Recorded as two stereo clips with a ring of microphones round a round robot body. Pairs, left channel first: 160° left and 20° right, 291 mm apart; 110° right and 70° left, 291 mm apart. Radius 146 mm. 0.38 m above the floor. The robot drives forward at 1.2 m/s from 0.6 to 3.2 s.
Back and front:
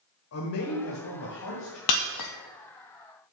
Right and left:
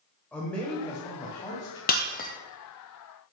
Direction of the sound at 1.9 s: 175° right.